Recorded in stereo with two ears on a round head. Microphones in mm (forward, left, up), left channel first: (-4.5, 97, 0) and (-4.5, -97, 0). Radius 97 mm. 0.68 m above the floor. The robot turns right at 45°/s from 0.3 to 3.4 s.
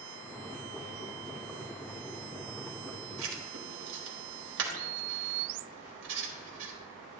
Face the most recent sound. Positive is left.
turn(degrees=-60)  # may be behind; listen again after turning